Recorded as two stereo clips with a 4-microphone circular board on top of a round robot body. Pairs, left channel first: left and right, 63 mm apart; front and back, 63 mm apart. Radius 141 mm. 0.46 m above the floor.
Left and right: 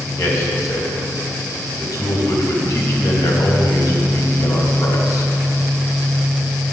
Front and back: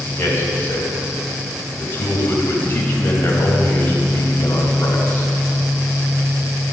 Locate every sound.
0.2 s a man speaking: 60° left, 3.5 m